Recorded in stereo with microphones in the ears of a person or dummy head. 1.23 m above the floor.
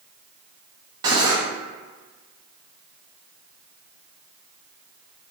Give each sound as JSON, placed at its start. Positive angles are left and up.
{"t": 1.0, "sound": "cutlery clinking", "side_deg": -20, "distance_m": 0.8}